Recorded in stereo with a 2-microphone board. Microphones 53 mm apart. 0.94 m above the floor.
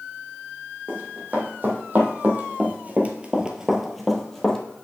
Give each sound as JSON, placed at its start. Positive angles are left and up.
{"t": 0.9, "sound": "running footsteps", "side_deg": -40, "distance_m": 2.5}